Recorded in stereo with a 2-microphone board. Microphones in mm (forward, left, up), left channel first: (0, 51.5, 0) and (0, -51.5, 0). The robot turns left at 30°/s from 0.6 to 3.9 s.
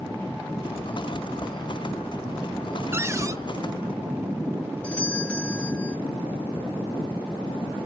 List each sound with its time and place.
2.9 s a cupboard door: 25° right (ahead or behind), 0.6 m; by 3.4 s 30° right (ahead or behind), 0.6 m
4.8 s a doorbell: 10° left (ahead or behind), 1.3 m